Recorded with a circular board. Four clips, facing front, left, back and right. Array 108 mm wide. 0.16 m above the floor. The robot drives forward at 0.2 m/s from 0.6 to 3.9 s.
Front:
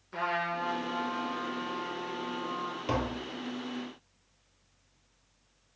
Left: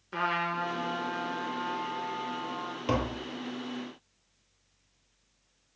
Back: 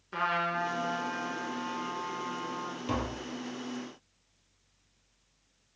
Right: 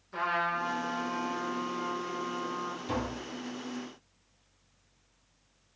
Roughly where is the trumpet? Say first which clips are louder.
Even, back 1 dB; behind left.